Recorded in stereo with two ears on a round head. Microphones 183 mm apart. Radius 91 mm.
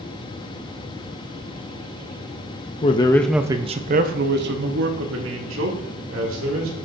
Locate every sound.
2.8 s a man speaking: 30° left (ahead or behind), 0.6 m; by 6.8 s 70° right (ahead or behind), 2.5 m